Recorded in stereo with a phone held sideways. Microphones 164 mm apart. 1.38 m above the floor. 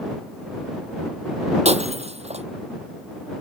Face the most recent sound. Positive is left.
turn(degrees=-40)  # may be behind; listen again after turning